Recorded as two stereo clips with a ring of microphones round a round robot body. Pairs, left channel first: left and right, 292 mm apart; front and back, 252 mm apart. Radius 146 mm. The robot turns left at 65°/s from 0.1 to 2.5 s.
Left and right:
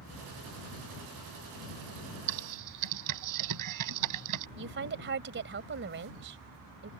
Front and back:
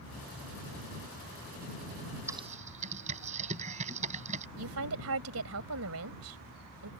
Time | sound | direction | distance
2.3 | typing on a keyboard | 100° right | ?
4.6 | a woman speaking | 140° right | ?